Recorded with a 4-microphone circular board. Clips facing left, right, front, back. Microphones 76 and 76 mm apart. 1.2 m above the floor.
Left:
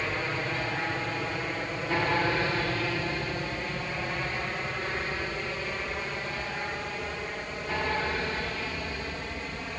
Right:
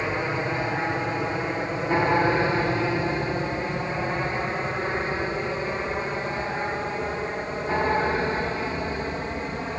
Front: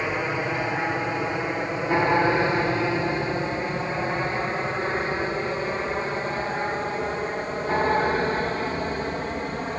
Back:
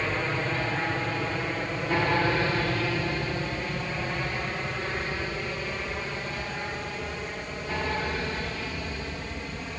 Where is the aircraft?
55° right; by 9.8 s 35° right.